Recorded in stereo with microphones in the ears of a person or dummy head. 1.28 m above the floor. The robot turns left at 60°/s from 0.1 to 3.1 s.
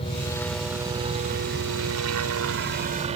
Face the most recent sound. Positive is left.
turn(degrees=-30)  # may be behind; listen again after turning